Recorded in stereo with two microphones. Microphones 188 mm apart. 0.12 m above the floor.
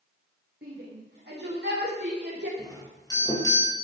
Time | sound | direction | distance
0.6 | a shout | 60° right (ahead or behind) | 8.5 m
2.6 | a doorbell | 20° left (ahead or behind) | 4.5 m